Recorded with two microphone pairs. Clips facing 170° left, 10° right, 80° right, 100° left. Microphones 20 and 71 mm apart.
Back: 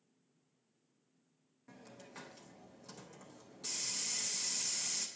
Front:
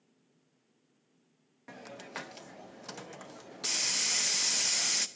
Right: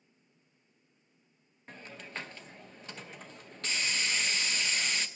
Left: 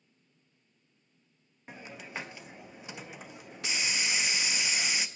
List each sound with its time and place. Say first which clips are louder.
1.7 s a hiss: front 10 dB, left 2 dB; 20° left, 0.5 m